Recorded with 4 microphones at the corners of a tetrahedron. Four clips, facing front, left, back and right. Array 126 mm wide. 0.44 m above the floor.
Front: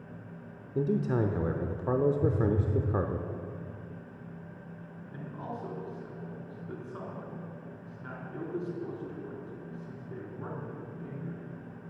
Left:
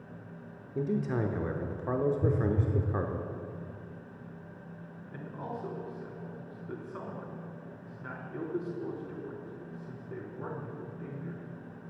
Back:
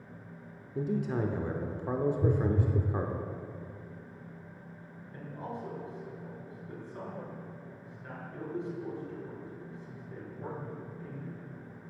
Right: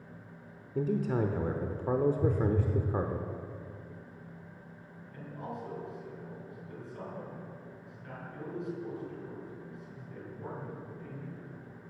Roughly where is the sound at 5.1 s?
Ahead left.